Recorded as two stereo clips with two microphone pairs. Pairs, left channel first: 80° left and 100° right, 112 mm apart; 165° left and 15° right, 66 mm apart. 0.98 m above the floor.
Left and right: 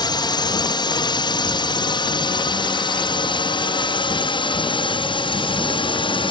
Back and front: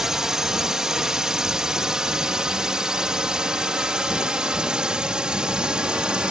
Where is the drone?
65° left; by 6.3 s 60° left.